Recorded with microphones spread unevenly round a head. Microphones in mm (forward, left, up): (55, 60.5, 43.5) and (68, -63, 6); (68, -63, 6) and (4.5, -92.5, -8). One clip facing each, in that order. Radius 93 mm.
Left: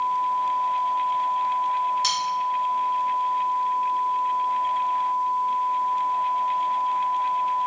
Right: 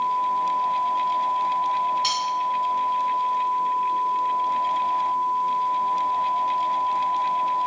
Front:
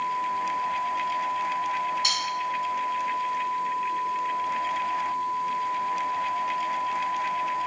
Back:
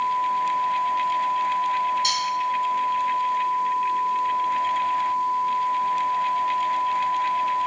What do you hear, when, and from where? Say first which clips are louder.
2.0 s cutlery clinking: right 1 dB, back 4 dB; 70° left, 1.1 m